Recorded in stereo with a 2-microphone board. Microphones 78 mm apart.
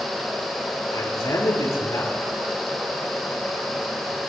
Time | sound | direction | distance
0.9 | a man speaking | 55° left (ahead or behind) | 6.5 m